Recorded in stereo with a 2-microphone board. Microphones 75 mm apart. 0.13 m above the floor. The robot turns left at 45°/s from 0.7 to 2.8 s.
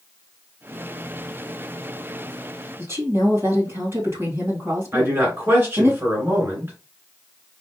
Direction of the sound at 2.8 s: 35° right (ahead or behind).